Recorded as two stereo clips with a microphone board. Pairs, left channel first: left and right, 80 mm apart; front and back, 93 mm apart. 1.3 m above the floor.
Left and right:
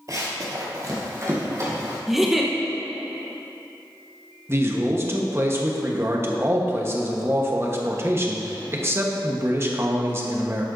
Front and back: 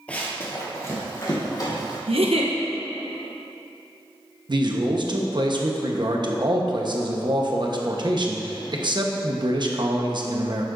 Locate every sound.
0.1 s running footsteps: 70° right, 1.9 m; by 2.0 s 40° right, 3.5 m
2.1 s a giggle: 175° right, 1.0 m
4.5 s a man speaking: 145° right, 1.1 m